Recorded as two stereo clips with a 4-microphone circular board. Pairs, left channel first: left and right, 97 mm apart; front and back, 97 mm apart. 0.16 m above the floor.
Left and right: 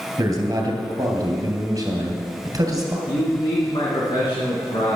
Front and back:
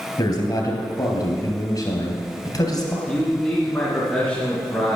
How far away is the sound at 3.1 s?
About 2.5 m.